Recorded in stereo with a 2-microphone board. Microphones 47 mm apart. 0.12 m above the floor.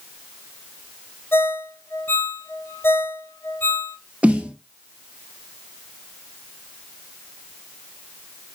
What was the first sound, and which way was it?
A ringtone, 50° left (ahead or behind).